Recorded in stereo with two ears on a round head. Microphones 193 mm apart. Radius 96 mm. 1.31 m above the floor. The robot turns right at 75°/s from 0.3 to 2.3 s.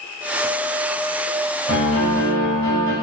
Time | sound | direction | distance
1.7 | a piano | 65° left | 1.8 m